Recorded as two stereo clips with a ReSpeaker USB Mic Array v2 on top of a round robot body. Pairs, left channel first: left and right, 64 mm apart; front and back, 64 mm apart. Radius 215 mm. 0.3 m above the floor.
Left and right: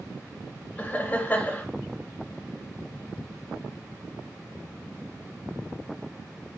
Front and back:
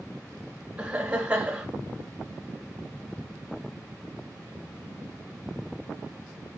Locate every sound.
0.8 s laughter: 125° left, 1.1 m